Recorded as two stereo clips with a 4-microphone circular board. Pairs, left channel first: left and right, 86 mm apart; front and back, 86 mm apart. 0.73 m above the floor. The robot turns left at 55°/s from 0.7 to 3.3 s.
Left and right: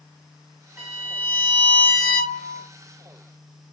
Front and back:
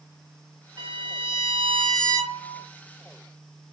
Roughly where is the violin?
Behind.